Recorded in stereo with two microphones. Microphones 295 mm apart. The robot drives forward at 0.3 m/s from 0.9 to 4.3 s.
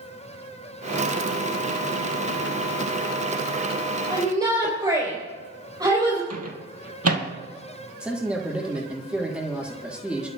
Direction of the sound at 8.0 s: 5° right (ahead or behind).